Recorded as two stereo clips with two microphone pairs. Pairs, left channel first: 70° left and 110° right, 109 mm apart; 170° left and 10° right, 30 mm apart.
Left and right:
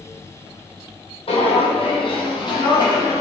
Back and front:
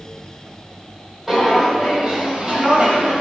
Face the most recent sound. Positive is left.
turn(degrees=20)